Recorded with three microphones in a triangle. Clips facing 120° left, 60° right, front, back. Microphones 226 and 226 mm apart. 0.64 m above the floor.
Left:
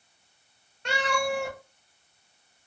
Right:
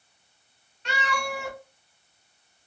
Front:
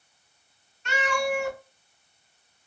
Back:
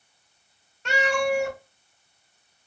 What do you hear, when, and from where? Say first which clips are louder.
0.8 s a cat meowing: left 4 dB, back 3 dB; 160° left, 1.5 m